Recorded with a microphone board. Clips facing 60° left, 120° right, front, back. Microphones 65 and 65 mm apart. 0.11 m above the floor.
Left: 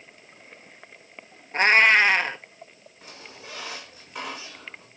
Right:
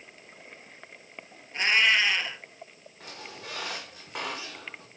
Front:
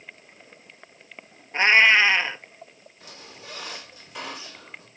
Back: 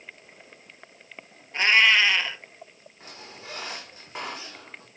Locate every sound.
1.5 s a cat meowing: 55° left, 0.5 m
3.0 s a squeak: 130° right, 6 m